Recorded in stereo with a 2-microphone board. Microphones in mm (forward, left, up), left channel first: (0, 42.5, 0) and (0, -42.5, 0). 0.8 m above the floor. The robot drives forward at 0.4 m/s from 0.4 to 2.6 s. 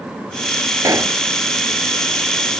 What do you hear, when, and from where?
0.8 s a pop: 40° right (ahead or behind)